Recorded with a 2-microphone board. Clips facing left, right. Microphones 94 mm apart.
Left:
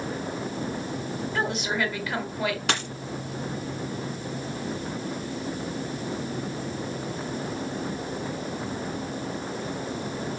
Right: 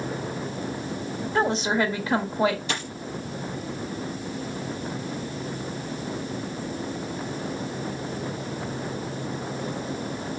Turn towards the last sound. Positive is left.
turn(degrees=70)  # may be behind; listen again after turning